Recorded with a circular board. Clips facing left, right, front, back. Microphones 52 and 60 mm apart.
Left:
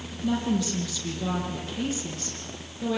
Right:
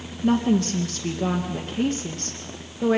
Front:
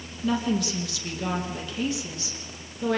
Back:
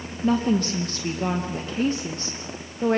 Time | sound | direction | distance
0.2 | a woman speaking | 130° right | 4 m